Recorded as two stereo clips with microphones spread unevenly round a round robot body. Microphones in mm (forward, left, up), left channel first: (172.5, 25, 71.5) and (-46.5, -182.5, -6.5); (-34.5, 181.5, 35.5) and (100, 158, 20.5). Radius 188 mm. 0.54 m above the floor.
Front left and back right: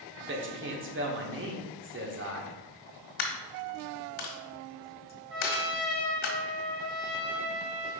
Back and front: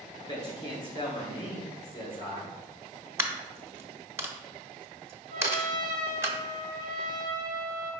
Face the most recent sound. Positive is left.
turn(degrees=-80)